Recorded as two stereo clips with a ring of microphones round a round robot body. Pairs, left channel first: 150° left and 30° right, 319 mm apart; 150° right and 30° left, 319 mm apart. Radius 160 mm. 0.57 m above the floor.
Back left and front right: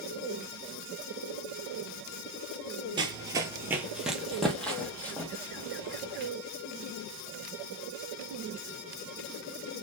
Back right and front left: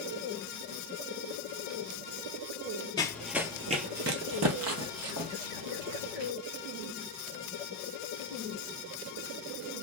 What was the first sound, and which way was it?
Running footsteps, 90° right.